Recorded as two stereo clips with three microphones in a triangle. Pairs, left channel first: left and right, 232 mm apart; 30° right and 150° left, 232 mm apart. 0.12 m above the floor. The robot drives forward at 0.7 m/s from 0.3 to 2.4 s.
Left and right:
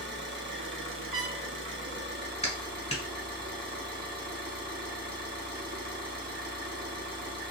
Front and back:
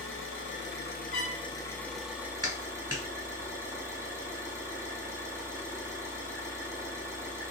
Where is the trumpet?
50° right, 1.8 m; by 1.4 s 55° right, 1.6 m.